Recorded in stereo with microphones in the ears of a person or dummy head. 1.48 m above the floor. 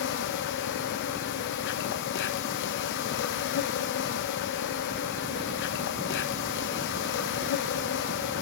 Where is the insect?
60° left (ahead or behind), 1.4 m.